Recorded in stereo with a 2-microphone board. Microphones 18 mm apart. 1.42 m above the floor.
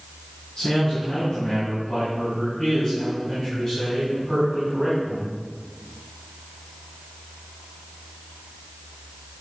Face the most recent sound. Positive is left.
turn(degrees=40)  # may be behind; listen again after turning